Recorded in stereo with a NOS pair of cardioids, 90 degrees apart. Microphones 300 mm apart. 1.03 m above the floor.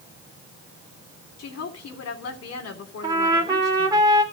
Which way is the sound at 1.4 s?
55° left.